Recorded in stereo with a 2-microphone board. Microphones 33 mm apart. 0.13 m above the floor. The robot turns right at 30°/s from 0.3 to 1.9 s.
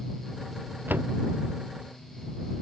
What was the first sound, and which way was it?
A door slam, 85° right.